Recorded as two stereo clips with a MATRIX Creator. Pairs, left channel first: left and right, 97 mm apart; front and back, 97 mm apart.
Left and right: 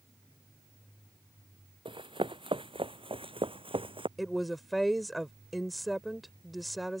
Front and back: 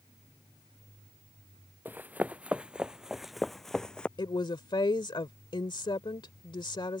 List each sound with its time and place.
1.9 s running footsteps: 110° right; by 4.1 s 80° right
4.2 s a woman speaking: straight ahead